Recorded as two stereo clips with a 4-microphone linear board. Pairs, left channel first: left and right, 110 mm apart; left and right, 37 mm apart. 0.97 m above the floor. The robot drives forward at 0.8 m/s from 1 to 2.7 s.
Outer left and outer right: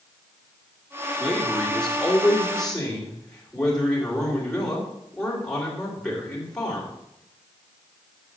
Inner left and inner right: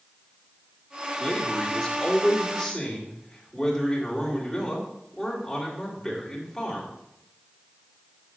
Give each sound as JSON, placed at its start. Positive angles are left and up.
{"t": 1.2, "sound": "a man speaking", "side_deg": 5, "distance_m": 2.0}